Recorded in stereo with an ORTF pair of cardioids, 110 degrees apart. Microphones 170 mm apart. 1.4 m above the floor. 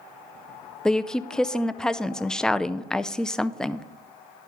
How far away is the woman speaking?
About 0.5 m.